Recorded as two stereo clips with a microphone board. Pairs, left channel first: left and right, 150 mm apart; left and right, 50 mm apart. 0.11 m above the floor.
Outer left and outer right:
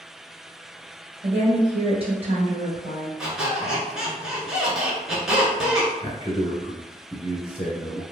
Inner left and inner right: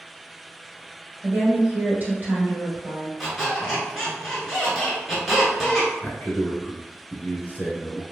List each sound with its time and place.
1.2 s a woman speaking: 40° right (ahead or behind), 1.5 m
3.2 s a squeak: 5° right (ahead or behind), 1.0 m
6.0 s a man speaking: 25° left (ahead or behind), 1.2 m